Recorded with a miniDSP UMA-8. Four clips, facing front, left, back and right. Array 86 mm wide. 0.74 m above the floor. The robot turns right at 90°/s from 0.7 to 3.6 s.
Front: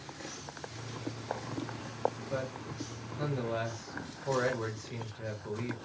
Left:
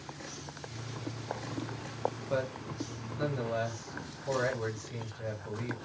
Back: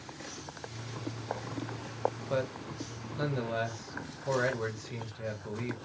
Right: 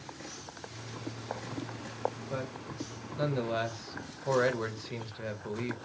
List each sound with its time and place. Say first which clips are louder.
2.3 s a man speaking: left 4 dB, back 4 dB; 145° left, 0.8 m; by 5.8 s 95° right, 0.8 m